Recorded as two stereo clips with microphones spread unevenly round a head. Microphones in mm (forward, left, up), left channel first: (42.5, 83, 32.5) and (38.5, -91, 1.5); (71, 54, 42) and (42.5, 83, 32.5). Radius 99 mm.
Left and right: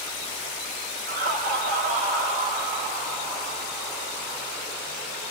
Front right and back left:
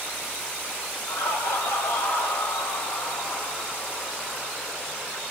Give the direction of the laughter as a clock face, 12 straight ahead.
2 o'clock.